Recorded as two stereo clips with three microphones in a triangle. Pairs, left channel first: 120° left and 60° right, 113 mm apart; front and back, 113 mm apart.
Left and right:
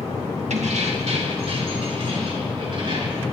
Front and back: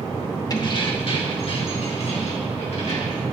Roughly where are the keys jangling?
Ahead right.